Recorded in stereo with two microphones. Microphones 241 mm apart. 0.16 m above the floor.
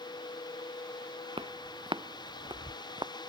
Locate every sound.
1.4 s footsteps: 20° right (ahead or behind); by 3.1 s 15° right (ahead or behind)